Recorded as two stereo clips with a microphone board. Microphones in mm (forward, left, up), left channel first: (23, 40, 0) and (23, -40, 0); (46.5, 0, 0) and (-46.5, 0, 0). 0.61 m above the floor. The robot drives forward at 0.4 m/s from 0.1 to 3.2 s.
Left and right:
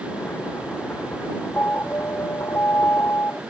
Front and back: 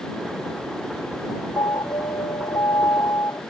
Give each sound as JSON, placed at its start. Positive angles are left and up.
{"t": 1.6, "sound": "an alarm", "azimuth_deg": 30}